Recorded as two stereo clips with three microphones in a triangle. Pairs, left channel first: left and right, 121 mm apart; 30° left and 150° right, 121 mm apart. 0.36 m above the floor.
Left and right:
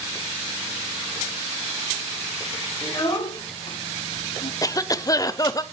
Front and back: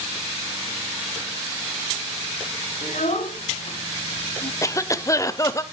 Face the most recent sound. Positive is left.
turn(degrees=65)